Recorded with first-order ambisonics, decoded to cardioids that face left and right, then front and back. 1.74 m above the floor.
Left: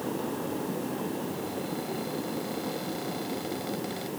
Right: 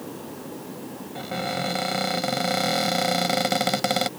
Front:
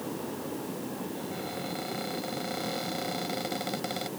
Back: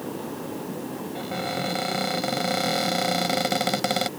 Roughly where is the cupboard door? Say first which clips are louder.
Right 6 dB, back 7 dB; behind right.